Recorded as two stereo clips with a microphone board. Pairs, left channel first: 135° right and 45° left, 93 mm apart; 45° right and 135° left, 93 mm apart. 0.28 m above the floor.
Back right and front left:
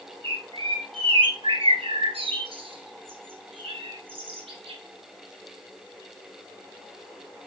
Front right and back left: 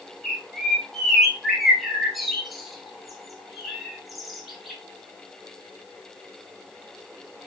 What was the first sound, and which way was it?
A bird, 45° left.